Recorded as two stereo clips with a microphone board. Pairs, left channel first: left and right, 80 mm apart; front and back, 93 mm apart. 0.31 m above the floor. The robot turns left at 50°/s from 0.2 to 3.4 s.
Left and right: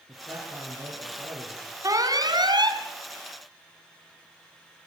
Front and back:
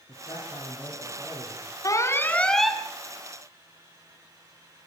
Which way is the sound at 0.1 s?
30° right.